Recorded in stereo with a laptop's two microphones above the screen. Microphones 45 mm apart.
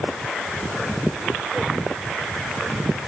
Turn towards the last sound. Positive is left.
No sound to turn to.